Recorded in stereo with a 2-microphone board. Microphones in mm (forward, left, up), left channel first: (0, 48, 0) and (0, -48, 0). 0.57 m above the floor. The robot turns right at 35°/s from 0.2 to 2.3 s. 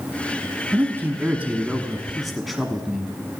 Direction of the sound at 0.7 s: 25° right (ahead or behind).